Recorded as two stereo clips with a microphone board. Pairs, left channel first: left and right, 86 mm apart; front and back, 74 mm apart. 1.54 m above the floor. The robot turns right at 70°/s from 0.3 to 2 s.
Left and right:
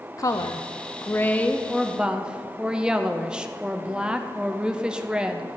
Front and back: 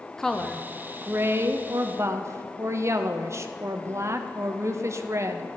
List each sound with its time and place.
0.2 s a woman speaking: 80° left, 0.6 m; by 5.5 s 160° right, 0.6 m